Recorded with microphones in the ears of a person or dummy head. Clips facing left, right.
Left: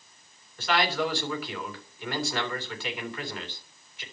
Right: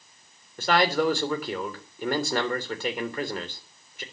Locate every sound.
0.6 s a man speaking: 40° right (ahead or behind), 3.5 m